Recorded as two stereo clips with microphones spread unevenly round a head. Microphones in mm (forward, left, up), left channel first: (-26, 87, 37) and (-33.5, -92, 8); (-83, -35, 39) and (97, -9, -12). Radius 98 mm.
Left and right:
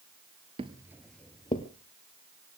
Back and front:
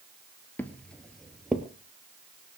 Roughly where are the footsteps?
Behind right.